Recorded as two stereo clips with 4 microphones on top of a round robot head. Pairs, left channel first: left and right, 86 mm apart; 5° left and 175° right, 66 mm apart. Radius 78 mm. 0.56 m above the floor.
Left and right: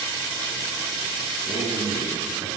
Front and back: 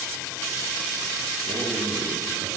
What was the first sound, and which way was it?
A man speaking, 170° left.